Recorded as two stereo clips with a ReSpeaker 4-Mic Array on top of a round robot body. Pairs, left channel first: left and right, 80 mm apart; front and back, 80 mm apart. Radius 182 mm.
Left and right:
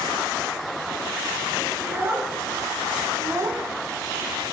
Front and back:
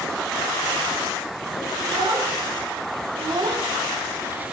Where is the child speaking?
155° right, 1.9 m; by 4.5 s 105° right, 0.5 m.